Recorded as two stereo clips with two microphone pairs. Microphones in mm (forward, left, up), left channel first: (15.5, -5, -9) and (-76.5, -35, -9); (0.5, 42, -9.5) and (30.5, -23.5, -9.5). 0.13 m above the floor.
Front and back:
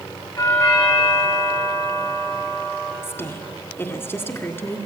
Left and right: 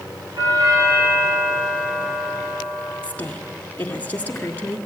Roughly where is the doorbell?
Ahead right.